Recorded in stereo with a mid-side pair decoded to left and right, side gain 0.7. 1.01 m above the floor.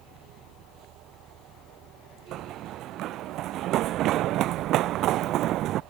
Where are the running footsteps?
50° right.